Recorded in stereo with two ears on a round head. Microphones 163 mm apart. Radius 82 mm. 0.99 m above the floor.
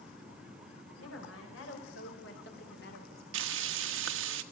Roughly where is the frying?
Right.